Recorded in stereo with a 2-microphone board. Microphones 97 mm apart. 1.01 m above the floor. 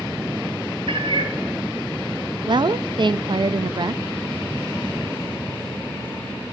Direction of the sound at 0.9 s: 65° right (ahead or behind).